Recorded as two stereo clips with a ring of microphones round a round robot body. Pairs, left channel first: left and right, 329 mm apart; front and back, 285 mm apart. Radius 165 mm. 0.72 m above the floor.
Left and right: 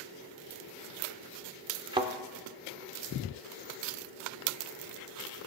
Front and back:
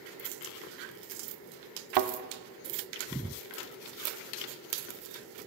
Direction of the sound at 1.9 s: 165° right.